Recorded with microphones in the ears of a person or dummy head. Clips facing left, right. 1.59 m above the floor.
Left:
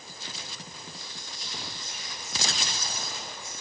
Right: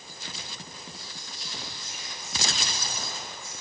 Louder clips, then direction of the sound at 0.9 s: Even; centre (ahead or behind).